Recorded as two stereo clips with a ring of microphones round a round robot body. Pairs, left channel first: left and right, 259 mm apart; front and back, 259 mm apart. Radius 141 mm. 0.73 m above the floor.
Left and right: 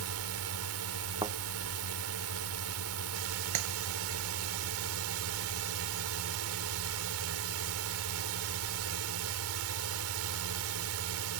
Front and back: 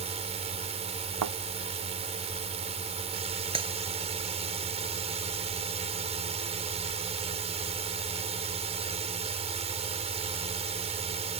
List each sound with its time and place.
0.0 s a drone: 115° right
1.2 s a thud: 165° right
3.5 s a clap: 110° right